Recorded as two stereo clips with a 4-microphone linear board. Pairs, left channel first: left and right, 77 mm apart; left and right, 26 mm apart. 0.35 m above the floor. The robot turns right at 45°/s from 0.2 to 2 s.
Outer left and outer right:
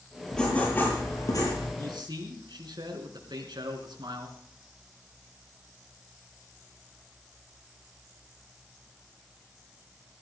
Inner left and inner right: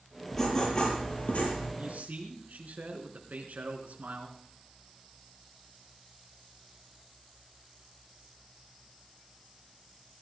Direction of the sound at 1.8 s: 75° right (ahead or behind).